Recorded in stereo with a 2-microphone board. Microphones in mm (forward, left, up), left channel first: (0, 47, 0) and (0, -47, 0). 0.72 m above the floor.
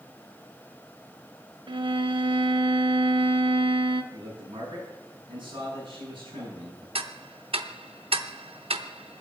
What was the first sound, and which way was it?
A violin, 60° right (ahead or behind).